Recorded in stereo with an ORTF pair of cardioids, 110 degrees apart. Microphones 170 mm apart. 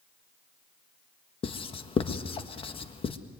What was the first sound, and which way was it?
Writing, 35° left.